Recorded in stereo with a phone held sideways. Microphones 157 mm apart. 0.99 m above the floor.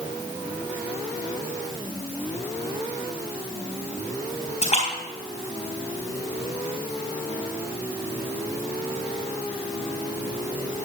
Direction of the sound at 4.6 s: 40° left (ahead or behind).